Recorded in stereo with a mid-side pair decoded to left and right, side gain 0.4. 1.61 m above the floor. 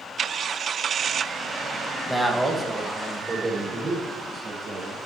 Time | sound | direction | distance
2.1 | a man speaking | 5° left | 1.7 m